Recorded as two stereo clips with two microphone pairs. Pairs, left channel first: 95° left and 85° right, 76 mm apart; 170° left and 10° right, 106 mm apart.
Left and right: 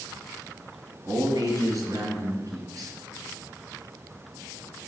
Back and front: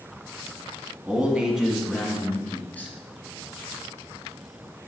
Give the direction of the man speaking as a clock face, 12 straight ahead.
3 o'clock.